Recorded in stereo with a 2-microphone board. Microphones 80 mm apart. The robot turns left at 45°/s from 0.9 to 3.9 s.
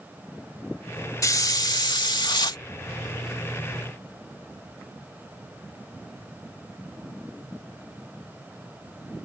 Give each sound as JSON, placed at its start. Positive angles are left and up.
{"t": 1.2, "sound": "a hiss", "azimuth_deg": 135}